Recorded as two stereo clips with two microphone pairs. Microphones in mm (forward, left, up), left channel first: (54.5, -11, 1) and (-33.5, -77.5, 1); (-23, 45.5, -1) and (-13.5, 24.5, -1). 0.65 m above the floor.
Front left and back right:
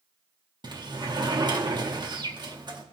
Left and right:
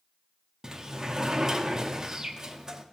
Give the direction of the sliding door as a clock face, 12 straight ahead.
4 o'clock.